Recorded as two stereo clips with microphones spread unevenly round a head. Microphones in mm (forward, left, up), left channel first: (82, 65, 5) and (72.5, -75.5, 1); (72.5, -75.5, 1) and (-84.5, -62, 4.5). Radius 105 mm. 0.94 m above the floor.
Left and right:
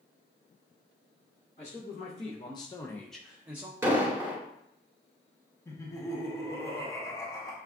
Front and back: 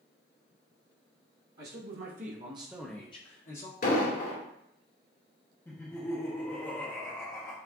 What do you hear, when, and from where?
1.6 s a man speaking: 145° left, 1.2 m; by 3.7 s 20° right, 0.8 m
3.8 s an explosion: 20° right, 2 m
5.7 s laughter: 50° left, 0.8 m